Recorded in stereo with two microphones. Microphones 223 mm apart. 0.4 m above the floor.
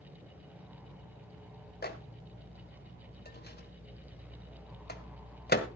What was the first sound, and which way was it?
A microwave, 45° left (ahead or behind).